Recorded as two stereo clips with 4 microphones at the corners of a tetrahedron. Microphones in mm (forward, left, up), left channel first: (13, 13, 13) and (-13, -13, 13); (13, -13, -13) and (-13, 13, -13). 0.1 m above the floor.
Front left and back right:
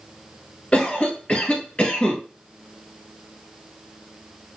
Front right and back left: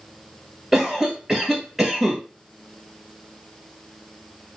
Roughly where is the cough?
Left.